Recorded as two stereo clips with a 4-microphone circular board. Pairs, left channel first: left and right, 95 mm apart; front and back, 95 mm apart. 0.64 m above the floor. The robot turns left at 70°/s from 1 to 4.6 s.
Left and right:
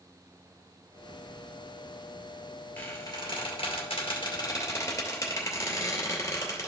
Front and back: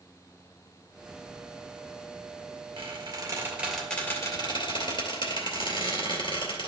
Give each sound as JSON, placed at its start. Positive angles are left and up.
{"t": 2.8, "sound": "a squeak", "azimuth_deg": 160, "distance_m": 2.5}